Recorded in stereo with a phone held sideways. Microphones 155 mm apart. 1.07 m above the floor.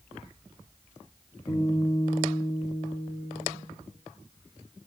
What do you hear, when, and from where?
1.5 s a guitar: 25° left (ahead or behind), 2.5 m